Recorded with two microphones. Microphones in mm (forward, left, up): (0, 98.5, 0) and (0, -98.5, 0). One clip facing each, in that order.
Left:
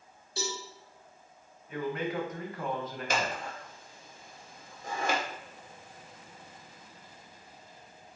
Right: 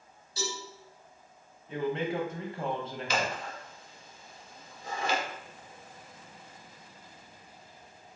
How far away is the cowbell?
About 1.9 m.